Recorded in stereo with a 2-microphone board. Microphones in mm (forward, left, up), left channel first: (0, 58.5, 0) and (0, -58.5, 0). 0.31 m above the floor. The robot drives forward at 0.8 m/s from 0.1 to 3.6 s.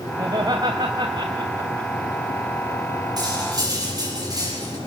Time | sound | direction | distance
0.2 | laughter | 35° right (ahead or behind) | 2.5 m
3.2 | cutlery clinking | 35° right (ahead or behind) | 6.5 m